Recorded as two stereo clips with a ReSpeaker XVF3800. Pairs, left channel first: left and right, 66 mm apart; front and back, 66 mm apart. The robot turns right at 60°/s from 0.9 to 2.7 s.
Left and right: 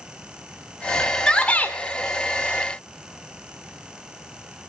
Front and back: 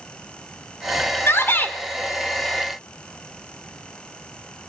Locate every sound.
1.3 s a shout: 15° left, 1.8 m; by 1.8 s 45° left, 1.8 m